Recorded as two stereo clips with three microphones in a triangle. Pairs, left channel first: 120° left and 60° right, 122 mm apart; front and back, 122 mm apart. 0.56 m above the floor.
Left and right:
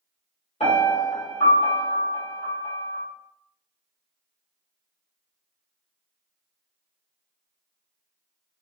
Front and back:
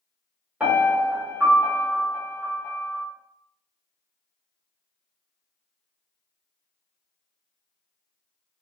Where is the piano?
105° left, 1.4 m.